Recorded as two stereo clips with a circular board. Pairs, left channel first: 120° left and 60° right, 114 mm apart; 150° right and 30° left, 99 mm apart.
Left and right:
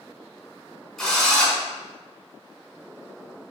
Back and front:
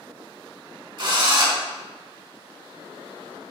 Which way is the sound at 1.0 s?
35° left.